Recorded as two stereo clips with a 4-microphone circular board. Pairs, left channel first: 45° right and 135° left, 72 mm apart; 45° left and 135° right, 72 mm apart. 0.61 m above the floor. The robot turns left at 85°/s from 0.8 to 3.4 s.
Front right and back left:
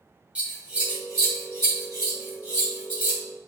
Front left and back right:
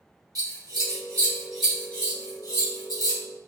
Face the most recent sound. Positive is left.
turn(degrees=-15)